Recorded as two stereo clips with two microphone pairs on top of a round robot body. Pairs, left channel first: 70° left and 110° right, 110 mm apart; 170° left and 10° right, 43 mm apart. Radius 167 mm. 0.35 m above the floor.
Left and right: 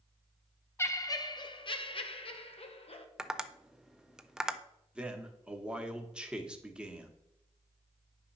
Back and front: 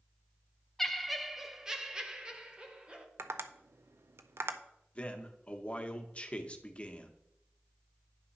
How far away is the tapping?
About 0.5 m.